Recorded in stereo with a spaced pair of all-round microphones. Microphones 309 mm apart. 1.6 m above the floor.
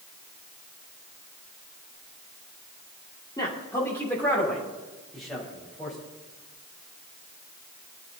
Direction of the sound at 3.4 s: 15° left (ahead or behind).